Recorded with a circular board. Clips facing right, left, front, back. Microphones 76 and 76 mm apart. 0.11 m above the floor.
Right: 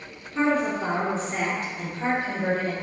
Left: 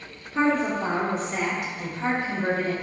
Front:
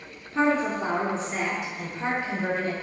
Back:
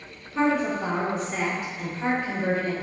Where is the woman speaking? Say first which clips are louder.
Left 1 dB, even; 25° left, 1.2 m; by 2.7 s 85° right, 2.5 m.